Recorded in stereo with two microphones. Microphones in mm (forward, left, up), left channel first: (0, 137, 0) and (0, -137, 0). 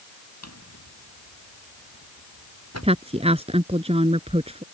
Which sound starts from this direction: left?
A drawer, at 0.4 s.